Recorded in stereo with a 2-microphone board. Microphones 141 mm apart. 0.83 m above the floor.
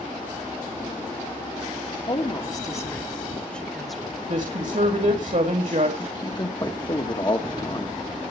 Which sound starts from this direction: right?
A woman speaking, at 4.3 s.